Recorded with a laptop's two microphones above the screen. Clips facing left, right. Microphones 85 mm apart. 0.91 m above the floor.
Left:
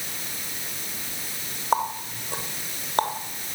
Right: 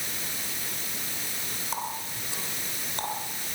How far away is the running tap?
About 2 m.